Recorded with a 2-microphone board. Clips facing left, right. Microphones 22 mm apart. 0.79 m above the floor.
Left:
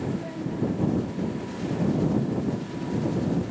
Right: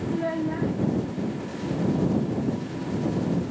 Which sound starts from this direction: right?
A child speaking, at 0.1 s.